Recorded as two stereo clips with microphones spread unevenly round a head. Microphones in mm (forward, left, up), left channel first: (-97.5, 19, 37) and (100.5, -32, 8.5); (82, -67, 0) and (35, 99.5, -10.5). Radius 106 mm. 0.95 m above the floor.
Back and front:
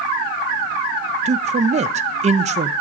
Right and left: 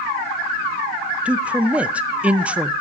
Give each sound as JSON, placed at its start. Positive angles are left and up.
{"t": 1.2, "sound": "a man speaking", "azimuth_deg": 25, "distance_m": 0.6}